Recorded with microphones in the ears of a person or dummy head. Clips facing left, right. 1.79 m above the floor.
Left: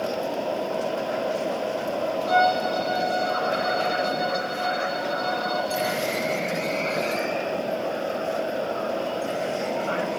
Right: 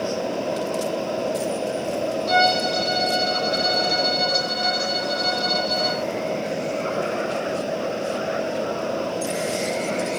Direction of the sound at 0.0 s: 25° right (ahead or behind).